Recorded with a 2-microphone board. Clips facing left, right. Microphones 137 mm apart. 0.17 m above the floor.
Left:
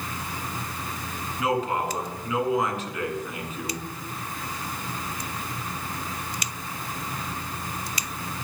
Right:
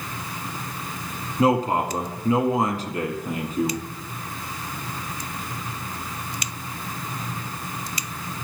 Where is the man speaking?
35° right (ahead or behind), 1.9 m.